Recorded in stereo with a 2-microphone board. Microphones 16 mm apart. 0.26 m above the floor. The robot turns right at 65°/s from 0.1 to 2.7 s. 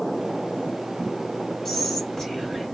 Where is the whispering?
10° left (ahead or behind), 1.4 m; by 2.7 s 35° left (ahead or behind), 1.4 m.